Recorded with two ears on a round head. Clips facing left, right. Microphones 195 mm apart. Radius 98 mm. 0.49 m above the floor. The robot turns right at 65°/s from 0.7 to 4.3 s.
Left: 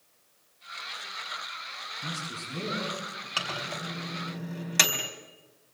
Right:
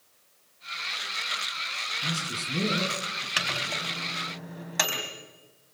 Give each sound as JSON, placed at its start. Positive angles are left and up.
{"t": 2.0, "sound": "a man speaking", "azimuth_deg": 180, "distance_m": 7.0}
{"t": 3.4, "sound": "a microwave", "side_deg": -25, "distance_m": 3.5}